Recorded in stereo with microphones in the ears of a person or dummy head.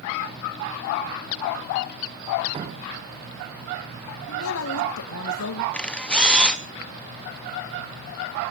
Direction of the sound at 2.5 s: 30° right (ahead or behind).